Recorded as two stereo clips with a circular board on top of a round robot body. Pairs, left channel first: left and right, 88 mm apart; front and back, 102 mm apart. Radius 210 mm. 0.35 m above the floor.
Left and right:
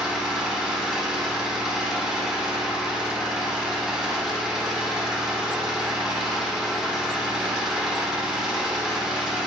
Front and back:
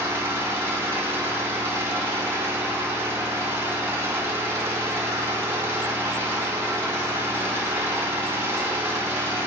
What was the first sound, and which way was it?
An engine running, 165° right.